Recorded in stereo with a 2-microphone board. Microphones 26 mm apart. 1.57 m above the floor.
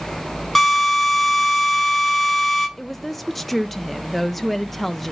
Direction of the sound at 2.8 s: 5° left (ahead or behind).